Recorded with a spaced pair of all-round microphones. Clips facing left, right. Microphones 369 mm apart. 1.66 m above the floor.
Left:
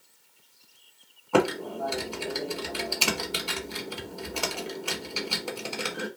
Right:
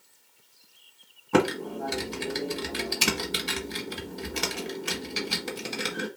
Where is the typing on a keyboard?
30° right (ahead or behind), 1.0 m.